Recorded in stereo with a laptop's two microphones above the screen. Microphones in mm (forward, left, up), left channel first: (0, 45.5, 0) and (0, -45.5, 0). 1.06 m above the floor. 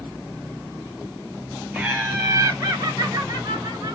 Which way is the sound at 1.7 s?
10° right (ahead or behind).